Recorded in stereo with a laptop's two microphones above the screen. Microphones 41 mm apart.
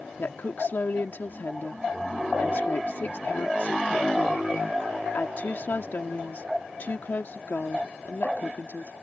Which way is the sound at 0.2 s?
65° left (ahead or behind).